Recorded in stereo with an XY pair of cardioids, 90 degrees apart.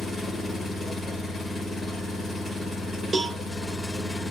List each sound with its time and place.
0.0 s an engine running: 35° left, 1.3 m
3.1 s a cowbell: 40° right, 0.8 m